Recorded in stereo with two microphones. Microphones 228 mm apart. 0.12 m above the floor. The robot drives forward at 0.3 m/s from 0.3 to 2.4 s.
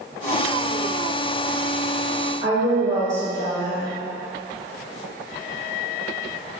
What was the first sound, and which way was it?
A woman speaking, 15° right (ahead or behind).